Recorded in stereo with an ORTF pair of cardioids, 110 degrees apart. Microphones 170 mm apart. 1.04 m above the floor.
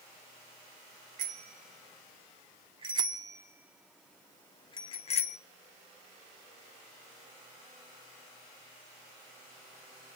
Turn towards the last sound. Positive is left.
turn(degrees=45)